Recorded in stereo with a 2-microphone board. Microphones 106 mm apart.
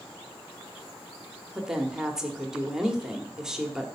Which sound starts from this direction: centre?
A woman speaking, at 1.6 s.